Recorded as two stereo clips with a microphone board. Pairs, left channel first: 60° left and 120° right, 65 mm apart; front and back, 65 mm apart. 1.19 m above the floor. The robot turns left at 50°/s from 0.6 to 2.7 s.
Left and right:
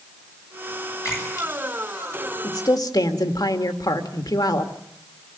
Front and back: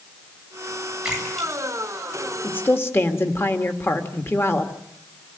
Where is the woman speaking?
65° left, 1.9 m; by 4.7 s 55° left, 1.9 m.